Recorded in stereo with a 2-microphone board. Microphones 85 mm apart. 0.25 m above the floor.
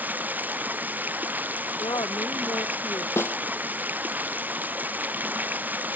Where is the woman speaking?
55° left (ahead or behind).